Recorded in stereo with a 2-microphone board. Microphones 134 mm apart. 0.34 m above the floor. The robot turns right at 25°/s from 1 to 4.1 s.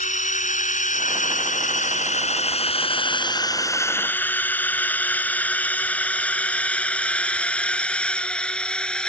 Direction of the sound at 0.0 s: 70° left (ahead or behind).